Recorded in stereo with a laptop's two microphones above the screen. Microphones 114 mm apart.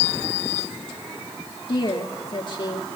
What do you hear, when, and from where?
1.7 s a woman speaking: 45° left (ahead or behind), 1.4 m